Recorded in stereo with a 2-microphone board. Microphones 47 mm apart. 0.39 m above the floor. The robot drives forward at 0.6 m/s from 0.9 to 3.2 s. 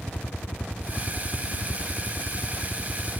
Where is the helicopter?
60° left (ahead or behind).